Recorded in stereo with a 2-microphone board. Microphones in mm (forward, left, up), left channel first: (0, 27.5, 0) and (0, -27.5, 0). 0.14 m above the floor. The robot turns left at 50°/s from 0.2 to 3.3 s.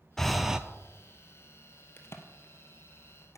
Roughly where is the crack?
Left.